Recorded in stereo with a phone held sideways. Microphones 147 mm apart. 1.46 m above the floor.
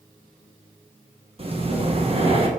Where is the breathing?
40° right (ahead or behind), 1.3 m.